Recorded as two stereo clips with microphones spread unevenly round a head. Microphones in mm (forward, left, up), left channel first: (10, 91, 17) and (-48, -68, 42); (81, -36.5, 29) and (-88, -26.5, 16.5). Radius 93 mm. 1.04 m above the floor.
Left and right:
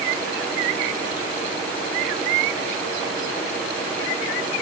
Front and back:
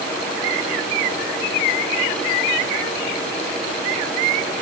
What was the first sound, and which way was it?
Only background noise.